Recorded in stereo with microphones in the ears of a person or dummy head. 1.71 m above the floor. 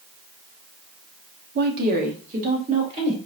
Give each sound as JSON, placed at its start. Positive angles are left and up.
{"t": 1.6, "sound": "a woman speaking", "side_deg": -55, "distance_m": 0.6}